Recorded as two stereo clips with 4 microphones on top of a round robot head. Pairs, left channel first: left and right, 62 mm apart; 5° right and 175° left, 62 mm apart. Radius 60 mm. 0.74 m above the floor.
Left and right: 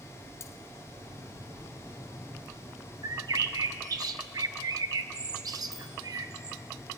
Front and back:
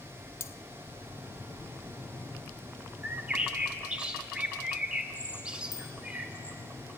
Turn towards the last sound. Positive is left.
turn(degrees=-5)